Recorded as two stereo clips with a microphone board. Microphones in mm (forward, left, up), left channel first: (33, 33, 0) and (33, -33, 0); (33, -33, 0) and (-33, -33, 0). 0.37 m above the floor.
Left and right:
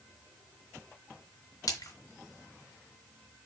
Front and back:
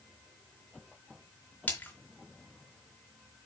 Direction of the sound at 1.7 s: 65° left.